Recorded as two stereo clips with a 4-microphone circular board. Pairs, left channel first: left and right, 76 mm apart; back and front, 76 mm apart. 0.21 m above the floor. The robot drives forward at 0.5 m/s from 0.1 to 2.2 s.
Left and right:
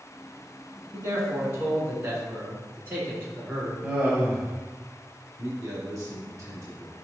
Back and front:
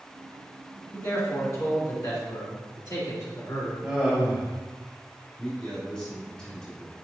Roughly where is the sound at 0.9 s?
Behind right.